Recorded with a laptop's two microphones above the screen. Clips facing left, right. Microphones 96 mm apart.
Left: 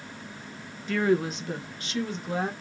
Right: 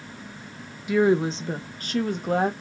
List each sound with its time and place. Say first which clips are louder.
0.9 s a woman speaking: right 4 dB; 10° right (ahead or behind), 0.7 m; by 2.5 s 60° right (ahead or behind), 1.2 m